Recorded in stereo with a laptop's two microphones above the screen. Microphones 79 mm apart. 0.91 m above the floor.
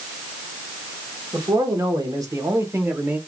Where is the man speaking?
55° right (ahead or behind), 1.7 m; by 3.2 s 20° right (ahead or behind), 1.0 m.